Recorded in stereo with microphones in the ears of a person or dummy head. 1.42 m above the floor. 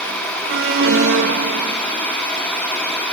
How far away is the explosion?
I don't hear an explosion.